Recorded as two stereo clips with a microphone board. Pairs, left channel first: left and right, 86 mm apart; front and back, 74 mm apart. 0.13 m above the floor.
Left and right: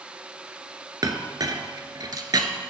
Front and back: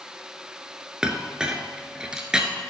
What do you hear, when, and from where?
1.0 s a clink: 105° right, 1.0 m